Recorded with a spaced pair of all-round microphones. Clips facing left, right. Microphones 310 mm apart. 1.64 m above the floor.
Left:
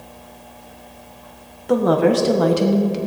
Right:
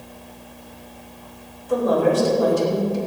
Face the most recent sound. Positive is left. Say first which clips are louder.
# left 3 dB
turn(degrees=80)